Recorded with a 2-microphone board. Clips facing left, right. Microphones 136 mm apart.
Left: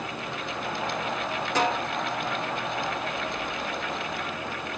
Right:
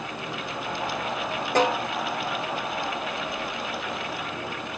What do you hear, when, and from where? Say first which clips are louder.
1.6 s a snare drum: right 4 dB; 55° right (ahead or behind), 8 m